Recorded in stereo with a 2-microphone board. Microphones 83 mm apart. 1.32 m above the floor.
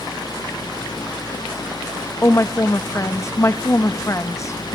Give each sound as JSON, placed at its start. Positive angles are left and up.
{"t": 2.2, "sound": "a woman speaking", "side_deg": 35, "distance_m": 1.2}